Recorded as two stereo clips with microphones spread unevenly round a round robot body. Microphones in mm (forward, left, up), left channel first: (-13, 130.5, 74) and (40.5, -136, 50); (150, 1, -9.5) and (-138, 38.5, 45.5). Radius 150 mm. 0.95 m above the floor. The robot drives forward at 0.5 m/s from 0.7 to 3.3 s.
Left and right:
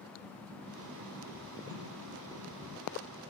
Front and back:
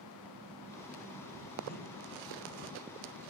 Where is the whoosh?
70° right, 6.5 m.